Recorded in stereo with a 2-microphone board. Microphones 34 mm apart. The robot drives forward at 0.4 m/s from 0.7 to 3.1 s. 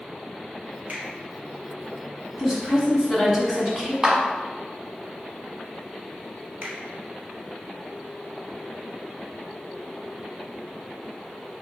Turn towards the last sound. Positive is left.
turn(degrees=-40)  # may be behind; listen again after turning